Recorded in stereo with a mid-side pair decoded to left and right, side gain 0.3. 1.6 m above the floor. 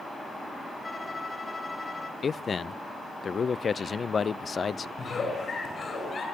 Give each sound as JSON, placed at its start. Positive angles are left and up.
{"t": 0.8, "sound": "a violin", "azimuth_deg": 40, "distance_m": 3.5}
{"t": 2.2, "sound": "a man speaking", "azimuth_deg": 55, "distance_m": 0.6}
{"t": 5.0, "sound": "a giggle", "azimuth_deg": 60, "distance_m": 8.0}